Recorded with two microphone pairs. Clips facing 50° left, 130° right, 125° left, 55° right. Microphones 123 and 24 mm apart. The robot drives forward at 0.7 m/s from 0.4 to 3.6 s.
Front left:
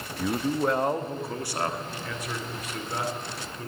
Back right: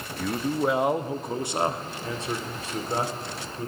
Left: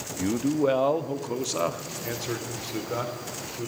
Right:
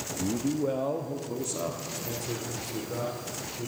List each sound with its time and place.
0.2 s a man speaking: 130° left, 0.6 m; by 3.7 s 170° left, 2.5 m